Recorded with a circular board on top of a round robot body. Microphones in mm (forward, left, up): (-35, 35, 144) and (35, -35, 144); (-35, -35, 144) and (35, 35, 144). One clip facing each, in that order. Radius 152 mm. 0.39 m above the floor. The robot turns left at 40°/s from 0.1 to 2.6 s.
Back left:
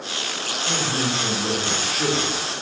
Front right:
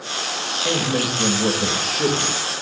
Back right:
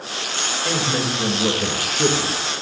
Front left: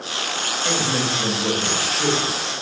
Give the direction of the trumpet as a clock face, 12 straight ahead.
I don't hear a trumpet.